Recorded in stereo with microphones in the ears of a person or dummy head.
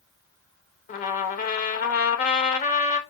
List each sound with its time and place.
0.9 s a trumpet: 40° left (ahead or behind), 1.1 m